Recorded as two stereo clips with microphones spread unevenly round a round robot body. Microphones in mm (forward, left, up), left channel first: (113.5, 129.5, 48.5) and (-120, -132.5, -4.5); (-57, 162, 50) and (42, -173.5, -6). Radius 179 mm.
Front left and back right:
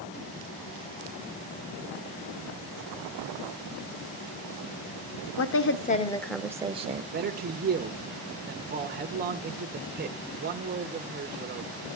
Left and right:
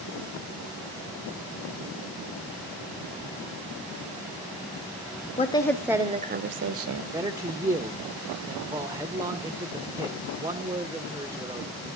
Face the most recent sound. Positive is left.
turn(degrees=-135)